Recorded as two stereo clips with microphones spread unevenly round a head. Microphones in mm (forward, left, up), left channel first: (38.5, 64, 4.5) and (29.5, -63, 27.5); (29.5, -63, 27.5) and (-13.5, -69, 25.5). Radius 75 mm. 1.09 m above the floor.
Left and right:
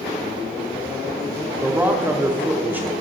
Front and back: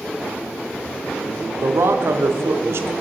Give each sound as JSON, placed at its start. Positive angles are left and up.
{"t": 1.6, "sound": "a man speaking", "azimuth_deg": -175, "distance_m": 0.6}